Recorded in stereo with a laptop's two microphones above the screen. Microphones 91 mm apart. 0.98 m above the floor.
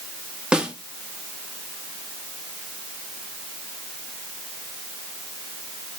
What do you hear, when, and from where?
0.5 s a snare drum: 10° right (ahead or behind), 1.4 m